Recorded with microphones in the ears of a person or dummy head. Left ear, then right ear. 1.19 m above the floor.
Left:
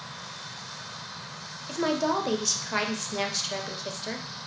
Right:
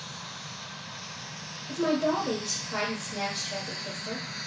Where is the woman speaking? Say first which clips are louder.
Even; 60° left (ahead or behind), 0.7 m.